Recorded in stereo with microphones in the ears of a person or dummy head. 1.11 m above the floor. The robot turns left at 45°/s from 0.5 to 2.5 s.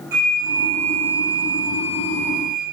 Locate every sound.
0.1 s a flute: 15° right, 4.5 m; by 2.6 s 105° right, 4.5 m